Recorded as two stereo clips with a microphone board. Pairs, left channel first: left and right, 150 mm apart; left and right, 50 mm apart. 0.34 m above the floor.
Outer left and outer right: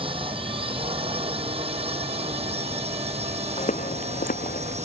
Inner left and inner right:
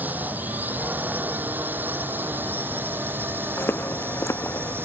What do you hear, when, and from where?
0.0 s a drone: 35° right (ahead or behind); by 4.8 s 45° right (ahead or behind)
3.6 s footsteps: 50° left (ahead or behind); by 4.8 s 75° left (ahead or behind)